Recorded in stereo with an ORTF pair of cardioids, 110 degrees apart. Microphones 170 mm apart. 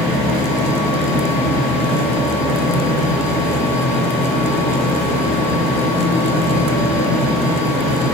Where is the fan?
70° left, 0.8 m.